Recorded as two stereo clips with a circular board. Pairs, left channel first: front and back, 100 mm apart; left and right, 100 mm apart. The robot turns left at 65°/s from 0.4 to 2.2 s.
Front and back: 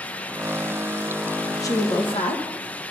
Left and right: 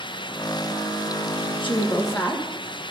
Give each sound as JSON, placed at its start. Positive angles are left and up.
{"t": 1.6, "sound": "a woman speaking", "azimuth_deg": 55, "distance_m": 1.2}